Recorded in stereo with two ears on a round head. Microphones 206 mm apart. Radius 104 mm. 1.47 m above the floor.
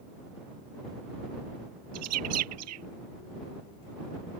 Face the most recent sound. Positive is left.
turn(degrees=-75)  # may be behind; listen again after turning